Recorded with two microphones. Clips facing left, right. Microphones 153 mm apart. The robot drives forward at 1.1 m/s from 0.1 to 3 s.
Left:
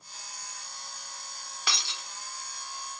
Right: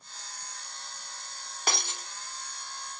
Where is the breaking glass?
45° right (ahead or behind), 0.5 m; by 2.1 s 40° right (ahead or behind), 0.6 m.